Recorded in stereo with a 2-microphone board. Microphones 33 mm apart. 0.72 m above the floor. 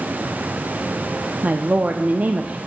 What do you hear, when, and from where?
1.4 s a woman speaking: 50° right (ahead or behind), 0.8 m